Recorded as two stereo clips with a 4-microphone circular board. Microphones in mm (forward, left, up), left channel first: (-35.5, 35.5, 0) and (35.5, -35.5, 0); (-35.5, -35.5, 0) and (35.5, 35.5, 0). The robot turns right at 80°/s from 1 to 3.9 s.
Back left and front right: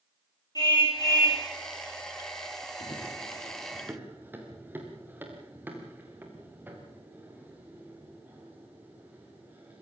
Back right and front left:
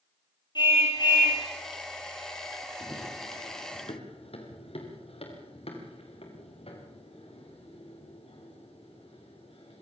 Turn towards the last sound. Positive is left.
turn(degrees=-115)